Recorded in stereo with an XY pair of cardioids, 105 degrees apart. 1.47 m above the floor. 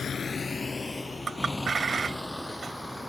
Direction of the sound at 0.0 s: 45° left.